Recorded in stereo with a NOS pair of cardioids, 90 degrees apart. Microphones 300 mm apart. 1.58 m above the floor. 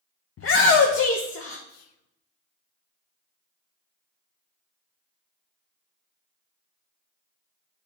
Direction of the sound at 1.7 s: 60° left.